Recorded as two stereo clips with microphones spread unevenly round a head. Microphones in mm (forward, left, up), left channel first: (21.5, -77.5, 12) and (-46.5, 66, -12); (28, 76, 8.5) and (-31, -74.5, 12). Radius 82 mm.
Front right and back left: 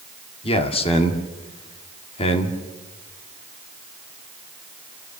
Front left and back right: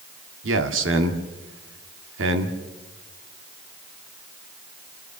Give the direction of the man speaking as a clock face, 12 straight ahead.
4 o'clock.